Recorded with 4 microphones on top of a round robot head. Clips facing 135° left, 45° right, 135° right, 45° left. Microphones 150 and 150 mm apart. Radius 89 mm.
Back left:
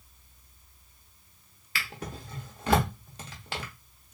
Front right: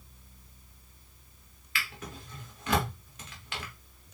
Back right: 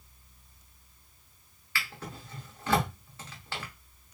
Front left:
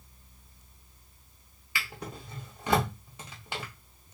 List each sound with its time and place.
1.8 s a drawer: 105° left, 0.6 m